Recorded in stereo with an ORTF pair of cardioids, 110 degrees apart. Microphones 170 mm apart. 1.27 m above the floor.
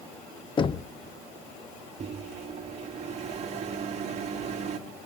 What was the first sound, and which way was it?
Knocking, 30° left.